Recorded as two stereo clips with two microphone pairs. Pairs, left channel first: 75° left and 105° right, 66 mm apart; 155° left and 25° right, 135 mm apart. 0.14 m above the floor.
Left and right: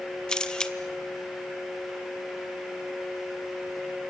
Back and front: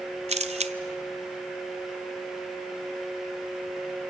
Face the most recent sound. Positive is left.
turn(degrees=0)